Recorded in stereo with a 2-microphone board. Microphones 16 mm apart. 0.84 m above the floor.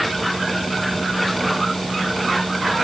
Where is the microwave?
No microwave in this recording.